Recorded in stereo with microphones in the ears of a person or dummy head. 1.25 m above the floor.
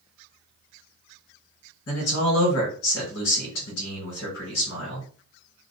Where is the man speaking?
75° left (ahead or behind), 1.5 m.